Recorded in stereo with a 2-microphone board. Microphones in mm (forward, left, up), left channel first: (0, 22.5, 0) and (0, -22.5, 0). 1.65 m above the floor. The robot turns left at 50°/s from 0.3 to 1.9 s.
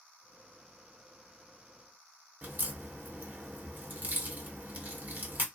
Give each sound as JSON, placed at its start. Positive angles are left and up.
{"t": 2.4, "sound": "a crack", "side_deg": -40, "distance_m": 1.0}